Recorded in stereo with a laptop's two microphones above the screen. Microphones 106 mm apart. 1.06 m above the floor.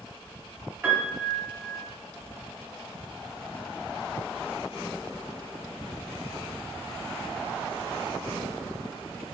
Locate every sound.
0.8 s a piano: 15° right (ahead or behind), 1.2 m